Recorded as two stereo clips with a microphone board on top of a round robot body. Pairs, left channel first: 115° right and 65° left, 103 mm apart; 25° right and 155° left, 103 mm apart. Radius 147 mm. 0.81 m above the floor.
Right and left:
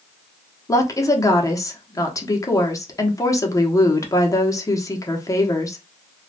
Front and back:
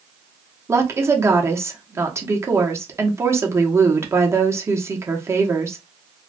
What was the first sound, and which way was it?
A woman speaking, 150° right.